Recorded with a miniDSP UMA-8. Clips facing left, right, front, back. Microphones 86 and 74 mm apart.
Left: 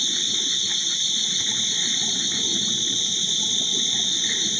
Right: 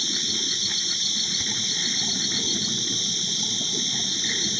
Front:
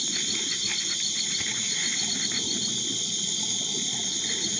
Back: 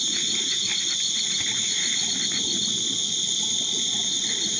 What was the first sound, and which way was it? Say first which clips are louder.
An insect: even, back 2 dB; 170° right.